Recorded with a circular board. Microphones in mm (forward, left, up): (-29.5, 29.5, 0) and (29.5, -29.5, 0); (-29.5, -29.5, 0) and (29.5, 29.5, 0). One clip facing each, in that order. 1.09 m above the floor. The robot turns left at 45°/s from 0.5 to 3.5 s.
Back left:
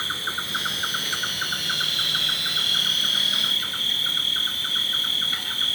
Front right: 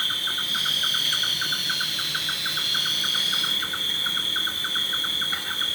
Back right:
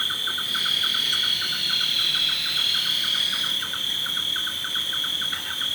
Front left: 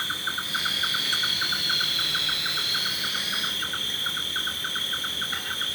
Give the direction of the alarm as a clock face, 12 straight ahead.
No alarm in this recording.